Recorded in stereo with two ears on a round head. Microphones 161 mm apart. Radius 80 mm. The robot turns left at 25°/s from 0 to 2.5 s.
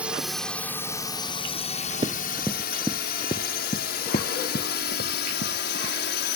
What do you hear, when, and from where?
0.0 s a drone: 10° right (ahead or behind); by 6.4 s 65° left (ahead or behind)
2.0 s running footsteps: 25° right (ahead or behind); by 5.9 s 65° left (ahead or behind)